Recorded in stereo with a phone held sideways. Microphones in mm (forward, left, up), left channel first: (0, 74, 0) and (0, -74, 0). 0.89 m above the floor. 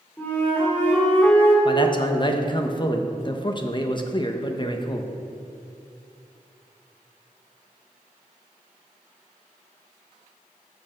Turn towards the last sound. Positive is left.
turn(degrees=35)  # may be behind; listen again after turning